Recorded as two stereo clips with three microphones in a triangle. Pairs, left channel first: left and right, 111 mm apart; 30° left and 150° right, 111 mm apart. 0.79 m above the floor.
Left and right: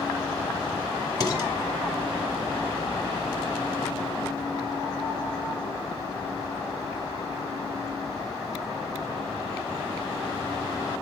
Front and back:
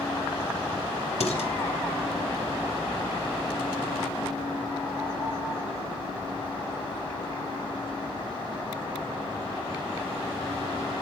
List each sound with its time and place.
1.2 s dishes clattering: 40° left, 1.4 m